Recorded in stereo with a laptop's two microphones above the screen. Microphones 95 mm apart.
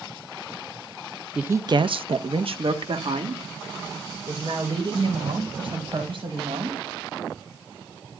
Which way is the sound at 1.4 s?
5° right (ahead or behind).